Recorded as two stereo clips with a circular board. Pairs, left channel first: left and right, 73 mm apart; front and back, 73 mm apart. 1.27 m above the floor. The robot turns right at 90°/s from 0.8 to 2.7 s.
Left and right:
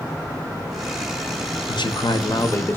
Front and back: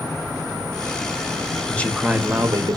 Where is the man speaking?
65° left, 0.7 m; by 2.8 s 155° left, 0.7 m.